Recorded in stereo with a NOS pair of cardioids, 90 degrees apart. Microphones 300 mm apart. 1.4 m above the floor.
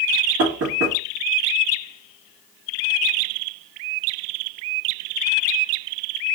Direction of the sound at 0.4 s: 50° right.